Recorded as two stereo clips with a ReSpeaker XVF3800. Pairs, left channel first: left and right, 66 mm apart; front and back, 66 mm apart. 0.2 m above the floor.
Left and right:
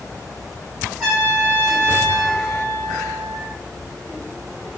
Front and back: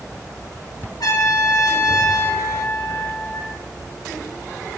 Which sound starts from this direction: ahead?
A trumpet, at 1.0 s.